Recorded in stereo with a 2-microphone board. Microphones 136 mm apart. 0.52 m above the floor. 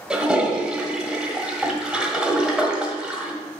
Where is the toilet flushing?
5° right (ahead or behind), 1.2 m.